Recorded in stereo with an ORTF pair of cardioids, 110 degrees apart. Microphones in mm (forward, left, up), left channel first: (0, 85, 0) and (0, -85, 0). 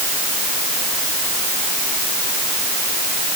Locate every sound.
Only background noise.